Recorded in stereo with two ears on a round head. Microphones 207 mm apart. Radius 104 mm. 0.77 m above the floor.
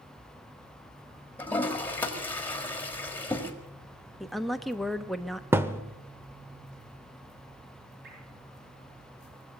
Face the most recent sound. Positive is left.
turn(degrees=-50)  # may be behind; listen again after turning